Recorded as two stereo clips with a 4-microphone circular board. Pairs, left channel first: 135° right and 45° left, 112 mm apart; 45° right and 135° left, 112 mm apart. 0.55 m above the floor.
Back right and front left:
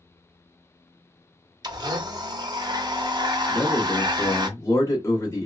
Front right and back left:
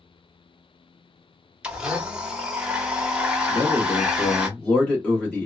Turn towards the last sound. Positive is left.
turn(degrees=-110)